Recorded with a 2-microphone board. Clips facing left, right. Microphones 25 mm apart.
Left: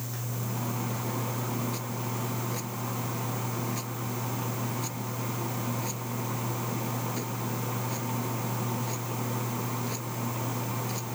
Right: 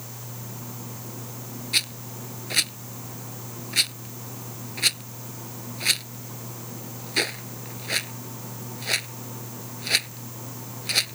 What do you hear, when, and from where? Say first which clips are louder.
1.7 s a rattle: right 7 dB; 85° right